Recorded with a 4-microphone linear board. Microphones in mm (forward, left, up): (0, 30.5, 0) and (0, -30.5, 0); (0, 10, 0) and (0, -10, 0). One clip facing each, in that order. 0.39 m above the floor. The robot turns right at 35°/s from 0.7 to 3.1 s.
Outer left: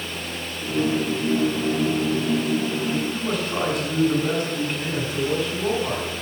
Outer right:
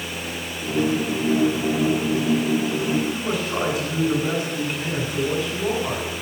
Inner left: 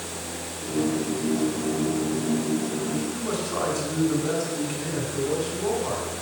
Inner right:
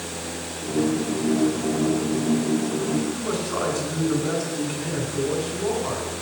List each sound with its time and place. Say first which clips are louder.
3.1 s a man speaking: outer right 1 dB, inner right 2 dB; 5° right (ahead or behind), 2 m